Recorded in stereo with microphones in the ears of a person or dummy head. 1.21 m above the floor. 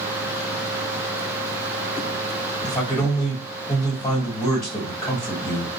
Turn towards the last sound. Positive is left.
turn(degrees=20)  # may be behind; listen again after turning